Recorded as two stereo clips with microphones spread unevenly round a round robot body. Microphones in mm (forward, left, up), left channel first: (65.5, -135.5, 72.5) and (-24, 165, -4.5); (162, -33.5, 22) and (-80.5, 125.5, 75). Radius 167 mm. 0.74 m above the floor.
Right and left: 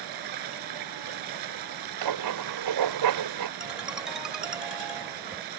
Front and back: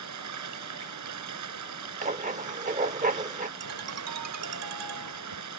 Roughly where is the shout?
I don't hear a shout.